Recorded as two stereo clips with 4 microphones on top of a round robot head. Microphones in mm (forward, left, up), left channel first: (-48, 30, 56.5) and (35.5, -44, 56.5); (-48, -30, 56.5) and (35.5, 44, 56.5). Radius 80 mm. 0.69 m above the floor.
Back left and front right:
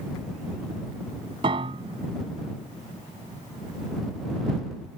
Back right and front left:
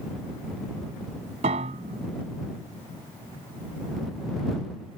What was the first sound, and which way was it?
A piano, 10° left.